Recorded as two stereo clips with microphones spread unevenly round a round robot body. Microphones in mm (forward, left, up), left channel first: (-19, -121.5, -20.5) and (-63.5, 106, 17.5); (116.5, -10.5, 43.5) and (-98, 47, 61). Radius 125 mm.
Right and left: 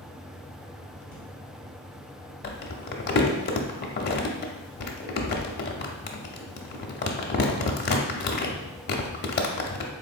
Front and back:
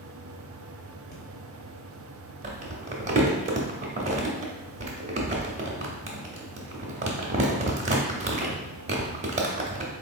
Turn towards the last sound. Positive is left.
turn(degrees=-130)